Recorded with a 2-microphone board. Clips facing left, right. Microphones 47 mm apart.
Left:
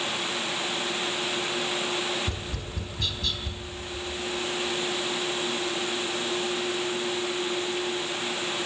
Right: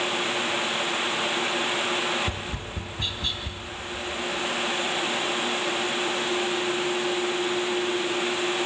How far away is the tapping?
About 3.5 m.